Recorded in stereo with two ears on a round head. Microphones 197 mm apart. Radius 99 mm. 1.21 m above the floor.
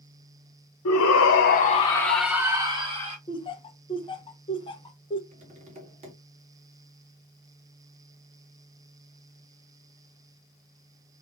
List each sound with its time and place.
0.8 s a shout: 75° left (ahead or behind), 0.9 m; by 3.2 s 30° right (ahead or behind), 1.4 m
3.3 s laughter: 25° left (ahead or behind), 1.0 m
5.3 s tapping: 30° right (ahead or behind), 2 m